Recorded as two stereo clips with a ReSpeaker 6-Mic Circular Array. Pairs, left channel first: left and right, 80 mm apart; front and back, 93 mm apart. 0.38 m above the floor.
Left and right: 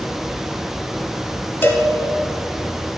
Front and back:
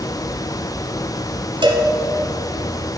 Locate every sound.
1.6 s a cowbell: 155° left, 1.1 m